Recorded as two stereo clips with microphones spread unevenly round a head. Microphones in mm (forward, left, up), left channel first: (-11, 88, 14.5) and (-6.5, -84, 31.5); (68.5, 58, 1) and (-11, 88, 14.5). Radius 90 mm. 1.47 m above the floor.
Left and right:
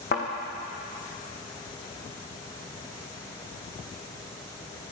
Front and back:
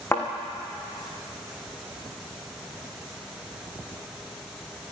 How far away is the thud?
About 3.5 m.